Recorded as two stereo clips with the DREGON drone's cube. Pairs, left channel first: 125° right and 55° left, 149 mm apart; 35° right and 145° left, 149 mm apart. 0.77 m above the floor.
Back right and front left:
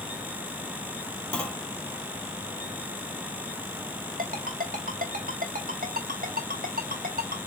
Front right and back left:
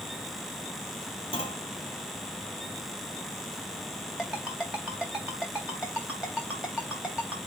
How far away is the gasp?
No gasp in this recording.